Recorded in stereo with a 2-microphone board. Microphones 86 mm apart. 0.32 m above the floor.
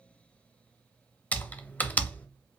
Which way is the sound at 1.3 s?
20° left (ahead or behind).